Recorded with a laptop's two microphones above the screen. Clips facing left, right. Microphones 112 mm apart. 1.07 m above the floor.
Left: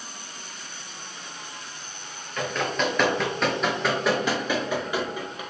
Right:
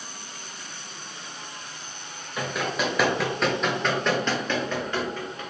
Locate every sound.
2.4 s running footsteps: 10° right (ahead or behind), 1.1 m; by 5.4 s 15° left (ahead or behind), 1.6 m